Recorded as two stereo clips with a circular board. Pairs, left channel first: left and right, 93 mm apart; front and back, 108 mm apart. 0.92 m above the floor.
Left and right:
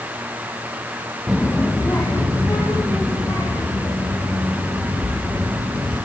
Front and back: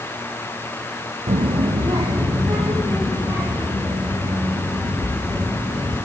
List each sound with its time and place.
1.3 s a child speaking: 175° right, 0.6 m; by 6.0 s 125° left, 7.5 m